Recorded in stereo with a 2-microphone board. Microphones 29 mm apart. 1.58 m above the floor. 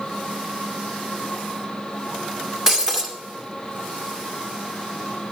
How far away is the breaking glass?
About 1.9 m.